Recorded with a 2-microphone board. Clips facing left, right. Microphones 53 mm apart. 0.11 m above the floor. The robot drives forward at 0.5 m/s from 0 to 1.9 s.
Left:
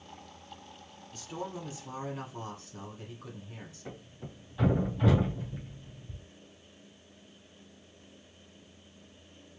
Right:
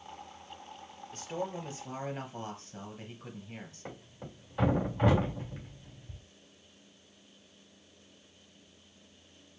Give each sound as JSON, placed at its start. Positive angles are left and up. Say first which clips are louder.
{"t": 1.1, "sound": "a man speaking", "louder": "right 2 dB", "side_deg": -40, "distance_m": 2.5}
{"t": 3.9, "sound": "a thud", "louder": "even", "side_deg": -40, "distance_m": 3.5}